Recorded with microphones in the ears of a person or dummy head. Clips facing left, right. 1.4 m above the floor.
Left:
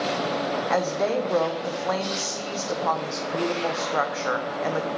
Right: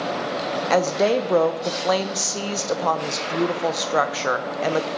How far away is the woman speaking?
About 0.6 m.